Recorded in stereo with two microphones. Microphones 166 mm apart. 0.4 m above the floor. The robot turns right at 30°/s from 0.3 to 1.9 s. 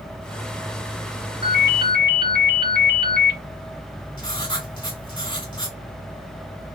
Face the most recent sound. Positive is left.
turn(degrees=30)  # may be behind; listen again after turning